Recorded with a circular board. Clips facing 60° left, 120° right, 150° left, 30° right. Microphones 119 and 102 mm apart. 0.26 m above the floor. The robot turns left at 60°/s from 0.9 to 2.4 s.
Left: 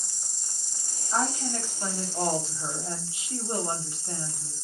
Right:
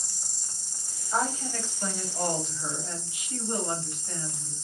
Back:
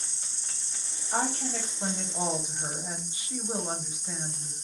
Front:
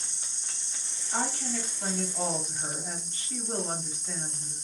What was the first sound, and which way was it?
An insect, 30° right.